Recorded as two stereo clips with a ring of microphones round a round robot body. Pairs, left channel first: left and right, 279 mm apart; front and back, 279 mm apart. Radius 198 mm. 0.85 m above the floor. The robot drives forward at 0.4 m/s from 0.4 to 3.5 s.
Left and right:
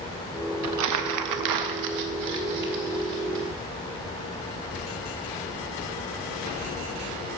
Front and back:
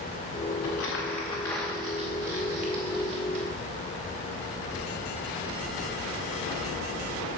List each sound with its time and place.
0.6 s crumpling: 55° right, 0.7 m; by 3.5 s 145° right, 0.9 m